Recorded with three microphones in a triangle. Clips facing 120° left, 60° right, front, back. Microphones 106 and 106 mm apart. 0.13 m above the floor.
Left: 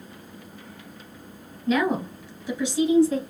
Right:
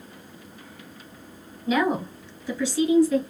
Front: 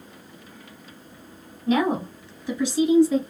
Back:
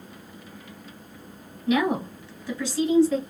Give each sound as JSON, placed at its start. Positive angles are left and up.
{"t": 1.7, "sound": "a woman speaking", "azimuth_deg": 5, "distance_m": 1.2}